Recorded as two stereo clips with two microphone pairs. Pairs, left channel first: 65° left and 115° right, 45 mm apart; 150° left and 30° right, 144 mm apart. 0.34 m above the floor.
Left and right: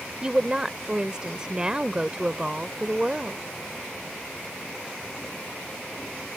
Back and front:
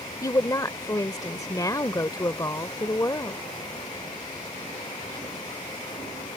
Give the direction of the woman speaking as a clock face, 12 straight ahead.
6 o'clock.